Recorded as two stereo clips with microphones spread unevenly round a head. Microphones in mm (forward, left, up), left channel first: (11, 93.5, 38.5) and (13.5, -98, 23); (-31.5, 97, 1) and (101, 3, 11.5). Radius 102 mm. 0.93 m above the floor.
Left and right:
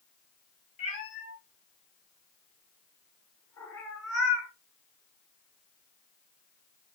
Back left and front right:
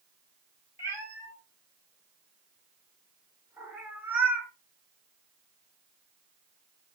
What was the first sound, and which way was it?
A cat meowing, 40° left.